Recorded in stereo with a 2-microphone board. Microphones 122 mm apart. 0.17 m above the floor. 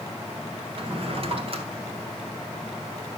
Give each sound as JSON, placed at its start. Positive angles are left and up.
{"t": 0.8, "sound": "a drawer", "side_deg": -50, "distance_m": 1.4}